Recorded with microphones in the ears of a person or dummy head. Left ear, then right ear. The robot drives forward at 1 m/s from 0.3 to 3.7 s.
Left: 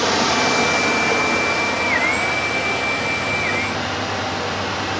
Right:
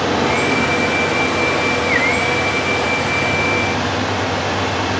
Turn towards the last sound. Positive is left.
turn(degrees=15)  # may be behind; listen again after turning